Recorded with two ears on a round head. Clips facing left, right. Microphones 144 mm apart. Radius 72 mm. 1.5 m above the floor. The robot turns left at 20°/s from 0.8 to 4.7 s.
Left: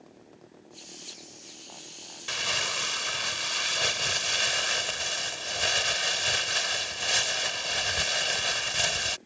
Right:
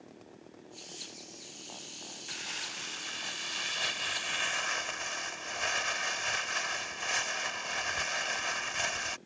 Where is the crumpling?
90° left; by 9.2 s 40° left.